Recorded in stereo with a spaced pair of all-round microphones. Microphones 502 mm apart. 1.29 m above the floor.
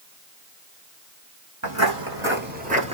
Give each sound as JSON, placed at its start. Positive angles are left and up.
{"t": 1.6, "sound": "footsteps", "side_deg": -30, "distance_m": 1.5}